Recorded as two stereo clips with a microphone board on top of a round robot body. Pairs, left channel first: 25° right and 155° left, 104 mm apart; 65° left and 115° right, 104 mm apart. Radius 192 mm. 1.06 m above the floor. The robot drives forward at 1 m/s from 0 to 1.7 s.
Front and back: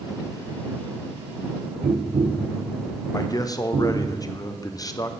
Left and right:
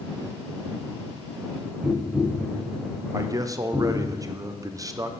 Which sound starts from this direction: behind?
Tapping, at 1.8 s.